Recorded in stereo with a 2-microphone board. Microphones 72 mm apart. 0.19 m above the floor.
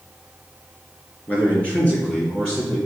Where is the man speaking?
20° left (ahead or behind), 3 m.